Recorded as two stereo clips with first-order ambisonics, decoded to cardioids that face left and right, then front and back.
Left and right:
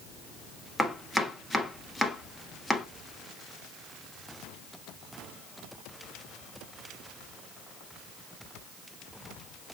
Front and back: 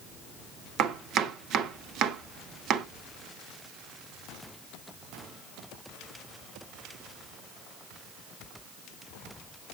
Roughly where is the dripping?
I don't hear dripping.